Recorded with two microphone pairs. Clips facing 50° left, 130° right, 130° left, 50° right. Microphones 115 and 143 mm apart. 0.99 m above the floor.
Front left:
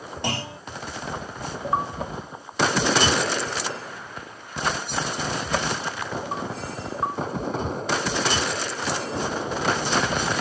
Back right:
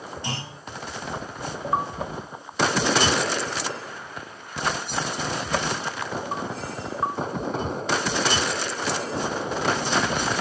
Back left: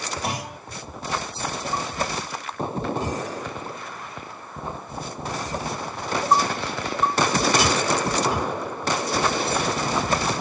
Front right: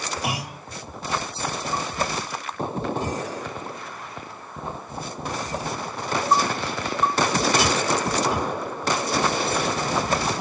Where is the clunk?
30° left, 2.5 m.